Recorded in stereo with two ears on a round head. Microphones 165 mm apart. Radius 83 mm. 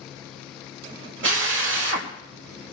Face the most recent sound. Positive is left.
turn(degrees=-70)  # may be behind; listen again after turning